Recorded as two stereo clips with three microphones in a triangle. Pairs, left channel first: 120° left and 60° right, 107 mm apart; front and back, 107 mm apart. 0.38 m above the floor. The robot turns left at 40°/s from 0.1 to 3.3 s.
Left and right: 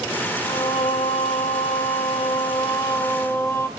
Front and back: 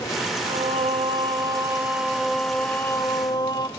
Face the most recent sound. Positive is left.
turn(degrees=50)